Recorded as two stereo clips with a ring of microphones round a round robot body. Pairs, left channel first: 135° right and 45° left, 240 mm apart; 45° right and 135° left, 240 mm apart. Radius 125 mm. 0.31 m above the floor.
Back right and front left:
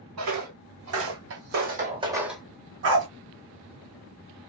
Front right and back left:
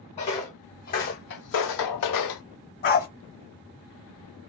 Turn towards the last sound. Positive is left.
turn(degrees=5)